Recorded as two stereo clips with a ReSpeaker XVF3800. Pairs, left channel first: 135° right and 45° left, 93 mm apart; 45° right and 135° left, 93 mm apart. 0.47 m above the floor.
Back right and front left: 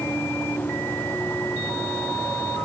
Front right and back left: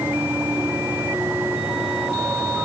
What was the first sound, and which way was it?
Only background noise.